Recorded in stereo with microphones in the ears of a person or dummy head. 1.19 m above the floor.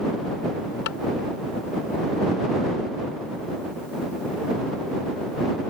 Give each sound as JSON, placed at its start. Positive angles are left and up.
{"t": 0.9, "sound": "tapping", "side_deg": 60}